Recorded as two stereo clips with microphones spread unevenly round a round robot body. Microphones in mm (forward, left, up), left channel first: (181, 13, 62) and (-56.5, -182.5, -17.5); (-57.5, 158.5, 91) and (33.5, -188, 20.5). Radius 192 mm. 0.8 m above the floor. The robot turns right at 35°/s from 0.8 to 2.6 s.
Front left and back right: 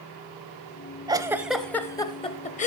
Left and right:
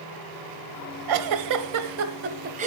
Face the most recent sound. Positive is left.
turn(degrees=0)